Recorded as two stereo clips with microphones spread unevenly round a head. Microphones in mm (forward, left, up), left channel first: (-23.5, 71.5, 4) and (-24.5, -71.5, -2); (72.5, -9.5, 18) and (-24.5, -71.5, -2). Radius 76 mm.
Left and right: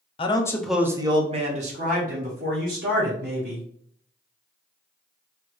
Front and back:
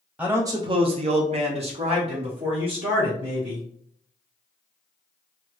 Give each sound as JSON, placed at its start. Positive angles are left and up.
{"t": 0.2, "sound": "a man speaking", "azimuth_deg": 140, "distance_m": 0.7}